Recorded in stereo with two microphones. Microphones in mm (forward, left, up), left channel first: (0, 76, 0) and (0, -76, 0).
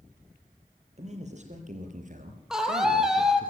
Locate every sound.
1.0 s a man speaking: 45° right (ahead or behind), 6 m; by 3.5 s 65° right (ahead or behind), 3.5 m
2.5 s a scream: 5° right (ahead or behind), 4.5 m